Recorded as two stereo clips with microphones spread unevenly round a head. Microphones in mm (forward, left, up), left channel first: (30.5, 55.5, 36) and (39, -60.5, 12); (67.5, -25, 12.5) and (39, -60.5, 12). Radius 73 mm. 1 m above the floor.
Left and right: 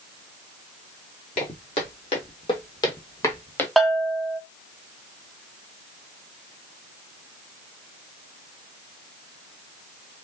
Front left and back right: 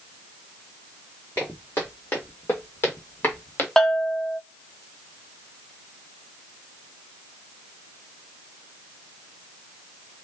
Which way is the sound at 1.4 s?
115° left.